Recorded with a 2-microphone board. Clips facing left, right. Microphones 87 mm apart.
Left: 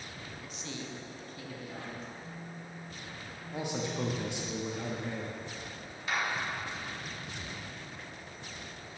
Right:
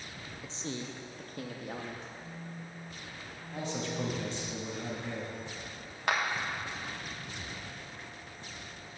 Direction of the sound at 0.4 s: 20° right (ahead or behind).